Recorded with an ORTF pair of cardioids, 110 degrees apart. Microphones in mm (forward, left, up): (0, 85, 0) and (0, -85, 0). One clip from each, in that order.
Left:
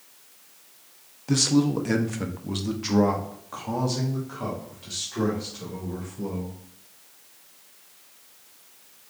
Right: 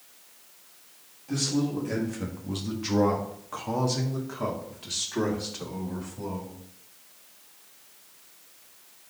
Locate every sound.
1.3 s a man speaking: 65° left, 1.1 m; by 6.6 s 35° right, 3 m